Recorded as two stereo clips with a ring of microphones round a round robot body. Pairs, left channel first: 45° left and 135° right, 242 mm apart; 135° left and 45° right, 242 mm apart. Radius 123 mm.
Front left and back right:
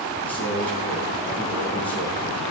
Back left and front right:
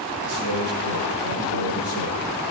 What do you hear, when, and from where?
0.2 s a man speaking: 35° right, 9.5 m